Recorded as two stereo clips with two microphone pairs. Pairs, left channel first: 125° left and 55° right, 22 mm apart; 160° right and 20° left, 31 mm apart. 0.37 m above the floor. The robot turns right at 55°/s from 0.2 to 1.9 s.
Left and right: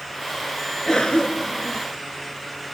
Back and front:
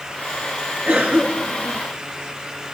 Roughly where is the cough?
Ahead left.